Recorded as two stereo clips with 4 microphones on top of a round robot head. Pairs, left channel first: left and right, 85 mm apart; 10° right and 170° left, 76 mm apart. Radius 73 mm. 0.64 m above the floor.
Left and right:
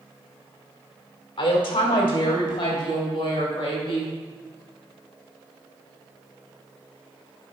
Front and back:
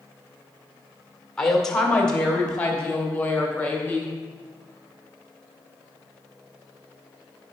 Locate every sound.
1.4 s a woman speaking: 75° left, 1.8 m; by 4.1 s 60° left, 3 m